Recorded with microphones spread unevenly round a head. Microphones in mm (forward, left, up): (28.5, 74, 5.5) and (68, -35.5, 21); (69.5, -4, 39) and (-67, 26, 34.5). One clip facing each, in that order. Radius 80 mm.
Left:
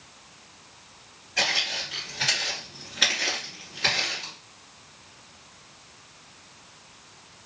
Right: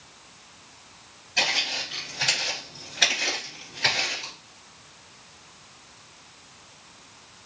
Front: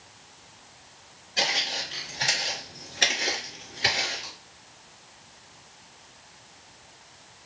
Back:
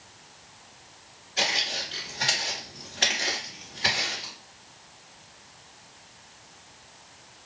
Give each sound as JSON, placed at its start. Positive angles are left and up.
{"t": 1.4, "sound": "footsteps", "azimuth_deg": -65, "distance_m": 1.9}